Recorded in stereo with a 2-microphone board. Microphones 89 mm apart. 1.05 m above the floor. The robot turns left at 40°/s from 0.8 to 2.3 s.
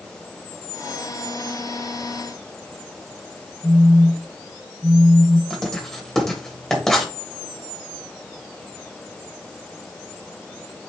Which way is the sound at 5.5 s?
5° left (ahead or behind).